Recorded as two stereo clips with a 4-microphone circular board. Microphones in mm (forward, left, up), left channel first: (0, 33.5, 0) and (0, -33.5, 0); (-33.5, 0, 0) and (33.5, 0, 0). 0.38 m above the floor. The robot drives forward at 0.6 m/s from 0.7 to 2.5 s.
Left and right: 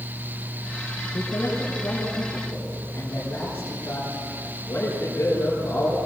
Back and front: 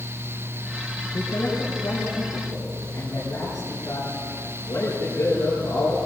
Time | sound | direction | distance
1.1 | a man speaking | 145° left | 5.5 m